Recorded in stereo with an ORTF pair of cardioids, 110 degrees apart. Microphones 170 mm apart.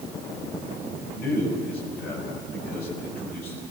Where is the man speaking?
70° left, 9.5 m.